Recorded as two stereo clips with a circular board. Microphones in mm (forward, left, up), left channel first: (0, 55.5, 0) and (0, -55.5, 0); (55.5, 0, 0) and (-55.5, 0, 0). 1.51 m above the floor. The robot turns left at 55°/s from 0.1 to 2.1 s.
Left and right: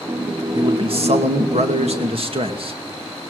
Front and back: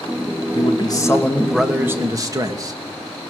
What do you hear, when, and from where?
0.6 s a man speaking: 35° right, 2.5 m; by 2.8 s 120° right, 2.5 m